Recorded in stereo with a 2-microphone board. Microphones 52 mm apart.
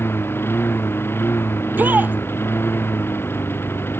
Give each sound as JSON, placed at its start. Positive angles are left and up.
{"t": 0.0, "sound": "a lawn mower", "side_deg": 45}
{"t": 1.6, "sound": "a shout", "side_deg": -35}